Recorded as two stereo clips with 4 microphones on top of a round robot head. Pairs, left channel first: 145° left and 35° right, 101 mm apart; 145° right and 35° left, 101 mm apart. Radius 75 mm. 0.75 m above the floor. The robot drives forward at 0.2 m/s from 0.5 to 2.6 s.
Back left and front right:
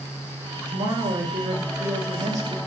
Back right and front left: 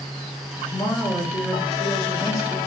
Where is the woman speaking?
75° right, 1.5 m; by 2.6 s 90° right, 1.5 m.